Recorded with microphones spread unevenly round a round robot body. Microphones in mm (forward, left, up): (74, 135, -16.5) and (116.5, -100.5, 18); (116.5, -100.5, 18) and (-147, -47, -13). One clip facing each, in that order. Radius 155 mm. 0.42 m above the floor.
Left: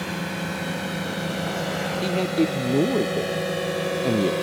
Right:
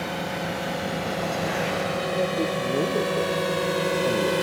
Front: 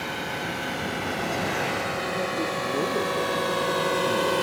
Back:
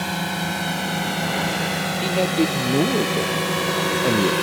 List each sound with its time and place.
0.0 s a drone: 170° left; by 4.4 s 165° right
2.0 s a man speaking: 140° left